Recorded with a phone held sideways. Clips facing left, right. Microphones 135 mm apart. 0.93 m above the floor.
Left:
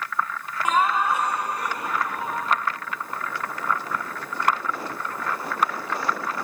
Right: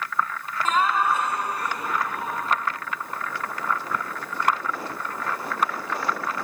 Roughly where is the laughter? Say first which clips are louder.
Left 1 dB; centre.